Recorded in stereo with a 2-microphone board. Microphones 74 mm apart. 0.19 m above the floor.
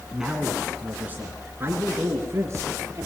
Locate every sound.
0.1 s a man speaking: 5° right (ahead or behind), 1.8 m; by 3.1 s 40° right (ahead or behind), 4 m